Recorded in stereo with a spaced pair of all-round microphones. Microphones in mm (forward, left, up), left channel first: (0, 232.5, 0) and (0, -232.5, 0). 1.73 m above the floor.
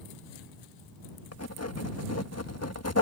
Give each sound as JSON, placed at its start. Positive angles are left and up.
{"t": 1.3, "sound": "writing", "side_deg": 35}